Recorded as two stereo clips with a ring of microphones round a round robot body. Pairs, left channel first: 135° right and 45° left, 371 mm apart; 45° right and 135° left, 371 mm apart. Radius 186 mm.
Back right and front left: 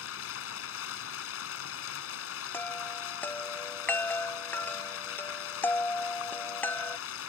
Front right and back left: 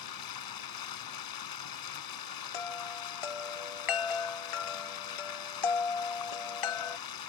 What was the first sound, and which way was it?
Running water, 80° right.